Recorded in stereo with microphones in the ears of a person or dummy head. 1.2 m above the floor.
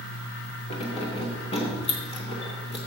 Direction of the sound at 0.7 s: 30° left (ahead or behind).